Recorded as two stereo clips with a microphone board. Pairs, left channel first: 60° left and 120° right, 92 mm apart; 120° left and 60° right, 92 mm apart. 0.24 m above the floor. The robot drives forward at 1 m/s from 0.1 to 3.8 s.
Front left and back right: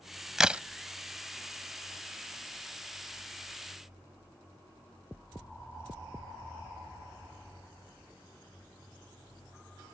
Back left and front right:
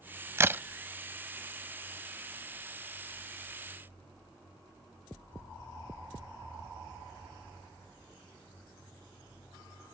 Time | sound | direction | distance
0.4 | a crack | 40° right | ?